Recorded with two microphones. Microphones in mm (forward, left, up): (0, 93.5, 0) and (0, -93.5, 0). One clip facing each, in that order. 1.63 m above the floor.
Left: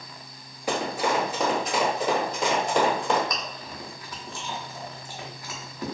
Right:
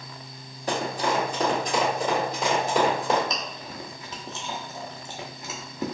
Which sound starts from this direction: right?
Chewing, at 3.3 s.